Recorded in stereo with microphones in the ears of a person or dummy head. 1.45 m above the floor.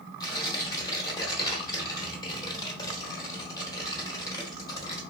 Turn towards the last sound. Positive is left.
turn(degrees=20)  # may be behind; listen again after turning